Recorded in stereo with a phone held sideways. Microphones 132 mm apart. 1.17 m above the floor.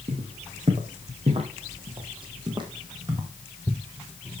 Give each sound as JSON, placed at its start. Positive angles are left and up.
{"t": 0.1, "sound": "footsteps", "side_deg": -55, "distance_m": 3.5}